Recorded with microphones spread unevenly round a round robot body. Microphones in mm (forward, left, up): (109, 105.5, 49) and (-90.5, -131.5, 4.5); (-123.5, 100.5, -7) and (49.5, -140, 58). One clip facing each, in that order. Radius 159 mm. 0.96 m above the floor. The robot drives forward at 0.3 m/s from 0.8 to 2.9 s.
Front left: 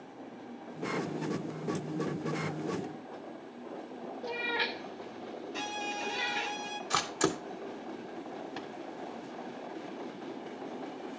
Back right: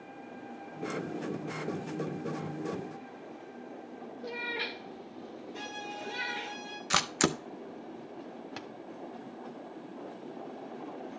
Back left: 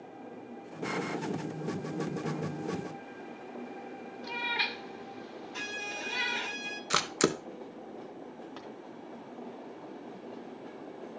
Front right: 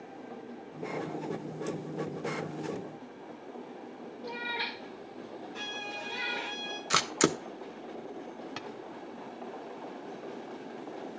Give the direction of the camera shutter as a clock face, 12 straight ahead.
5 o'clock.